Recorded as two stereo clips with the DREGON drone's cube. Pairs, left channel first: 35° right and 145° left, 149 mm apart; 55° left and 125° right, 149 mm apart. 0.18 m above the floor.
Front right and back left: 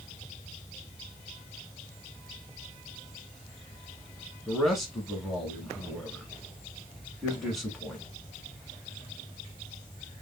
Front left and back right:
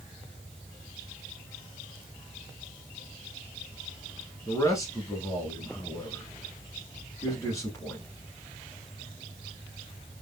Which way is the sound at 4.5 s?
55° left.